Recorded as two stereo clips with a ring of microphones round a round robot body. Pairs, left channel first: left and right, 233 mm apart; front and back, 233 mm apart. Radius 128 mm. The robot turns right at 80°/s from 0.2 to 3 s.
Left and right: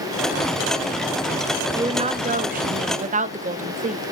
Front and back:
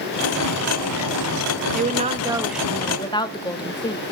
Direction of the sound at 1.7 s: 160° right.